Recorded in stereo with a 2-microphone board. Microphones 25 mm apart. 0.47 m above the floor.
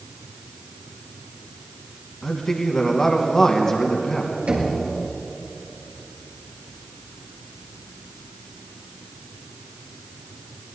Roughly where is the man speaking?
Left.